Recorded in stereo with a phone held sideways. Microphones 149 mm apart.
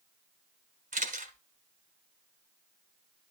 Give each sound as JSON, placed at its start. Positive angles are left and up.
{"t": 0.9, "sound": "a camera shutter", "side_deg": -60, "distance_m": 1.6}